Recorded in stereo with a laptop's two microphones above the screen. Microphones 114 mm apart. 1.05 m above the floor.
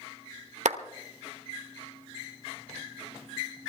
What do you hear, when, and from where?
0.7 s a clap: 85° right, 1.0 m